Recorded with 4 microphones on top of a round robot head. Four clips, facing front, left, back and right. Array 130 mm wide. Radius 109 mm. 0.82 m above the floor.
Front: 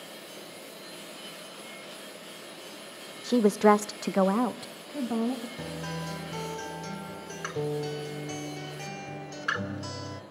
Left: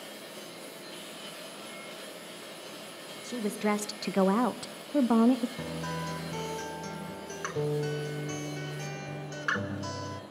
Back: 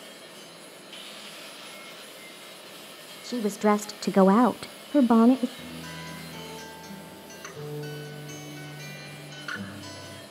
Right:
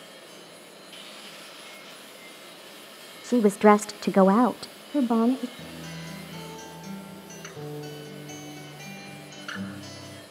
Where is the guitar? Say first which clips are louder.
Left 5 dB, front 4 dB; 55° left, 2 m.